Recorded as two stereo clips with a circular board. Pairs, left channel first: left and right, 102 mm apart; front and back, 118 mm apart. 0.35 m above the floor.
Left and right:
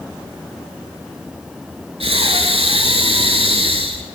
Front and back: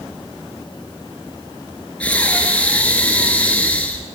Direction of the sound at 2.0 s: 75° right.